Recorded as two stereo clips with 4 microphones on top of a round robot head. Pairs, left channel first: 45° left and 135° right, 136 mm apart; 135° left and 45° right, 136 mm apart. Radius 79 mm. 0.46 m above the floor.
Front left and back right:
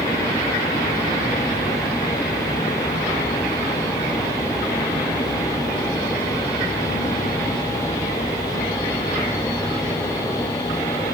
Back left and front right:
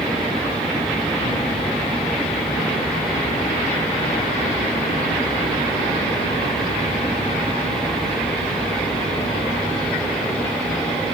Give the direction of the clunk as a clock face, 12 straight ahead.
I don't hear a clunk.